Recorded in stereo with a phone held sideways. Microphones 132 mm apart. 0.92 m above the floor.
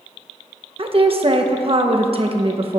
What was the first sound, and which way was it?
A woman speaking, 45° right (ahead or behind).